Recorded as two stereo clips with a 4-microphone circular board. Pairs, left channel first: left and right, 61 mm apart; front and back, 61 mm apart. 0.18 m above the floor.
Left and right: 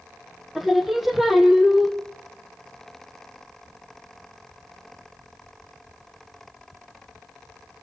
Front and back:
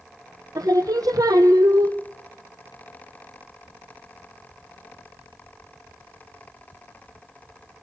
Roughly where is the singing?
Behind.